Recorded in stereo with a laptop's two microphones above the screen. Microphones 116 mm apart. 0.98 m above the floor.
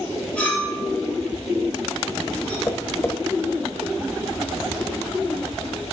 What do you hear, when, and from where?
0.4 s a clink: 10° left (ahead or behind), 2 m
2.7 s tapping: 20° left (ahead or behind), 1.2 m